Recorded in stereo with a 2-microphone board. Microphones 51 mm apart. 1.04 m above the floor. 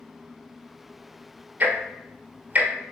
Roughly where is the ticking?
Right.